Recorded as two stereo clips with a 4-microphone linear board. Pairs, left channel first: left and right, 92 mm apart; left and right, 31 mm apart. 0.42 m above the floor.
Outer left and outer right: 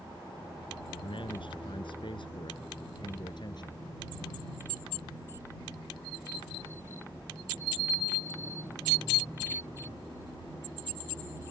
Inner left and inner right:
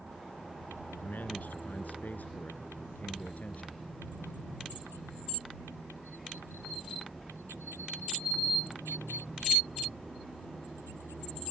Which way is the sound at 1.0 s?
70° left (ahead or behind).